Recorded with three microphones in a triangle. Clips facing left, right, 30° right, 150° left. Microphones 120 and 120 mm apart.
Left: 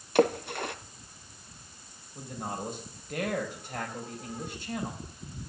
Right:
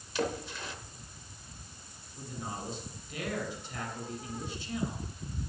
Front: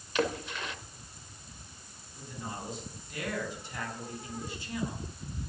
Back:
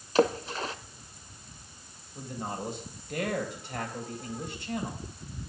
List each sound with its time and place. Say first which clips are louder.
0.1 s a splash: left 9 dB, back 6 dB; 105° left, 0.7 m
2.1 s a man speaking: left 4 dB, back 5 dB; 125° left, 3.5 m